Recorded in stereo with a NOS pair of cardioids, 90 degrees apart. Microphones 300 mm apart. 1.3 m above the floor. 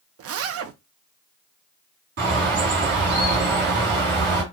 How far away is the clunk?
I don't hear a clunk.